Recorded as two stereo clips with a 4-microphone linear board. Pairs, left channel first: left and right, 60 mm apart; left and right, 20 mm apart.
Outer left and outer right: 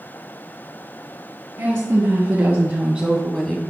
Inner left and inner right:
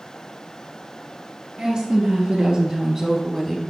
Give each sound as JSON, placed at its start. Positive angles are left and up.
{"t": 1.6, "sound": "a woman speaking", "side_deg": -45, "distance_m": 2.5}